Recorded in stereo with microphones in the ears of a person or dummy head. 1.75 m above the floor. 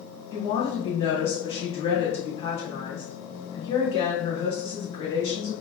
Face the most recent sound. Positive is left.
turn(degrees=25)  # may be behind; listen again after turning